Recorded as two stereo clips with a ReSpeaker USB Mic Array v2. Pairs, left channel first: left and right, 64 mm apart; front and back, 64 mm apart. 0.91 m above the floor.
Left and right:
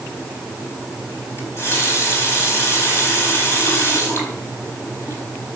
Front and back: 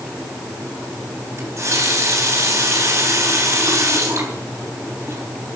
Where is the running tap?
135° left, 4.5 m.